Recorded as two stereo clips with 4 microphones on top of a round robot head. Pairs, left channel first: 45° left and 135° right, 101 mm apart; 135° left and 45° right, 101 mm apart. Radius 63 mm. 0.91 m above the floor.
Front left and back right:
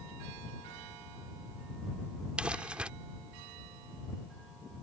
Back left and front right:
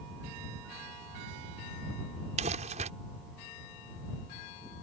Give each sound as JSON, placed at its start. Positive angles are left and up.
{"t": 2.4, "sound": "crumpling", "azimuth_deg": -55}